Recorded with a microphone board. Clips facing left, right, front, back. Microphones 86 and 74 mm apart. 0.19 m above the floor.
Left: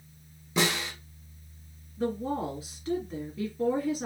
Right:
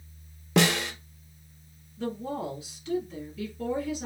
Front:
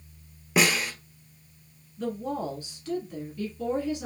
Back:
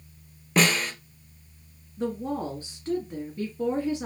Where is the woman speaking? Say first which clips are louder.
Left 2 dB, back 1 dB; 135° left, 2.5 m.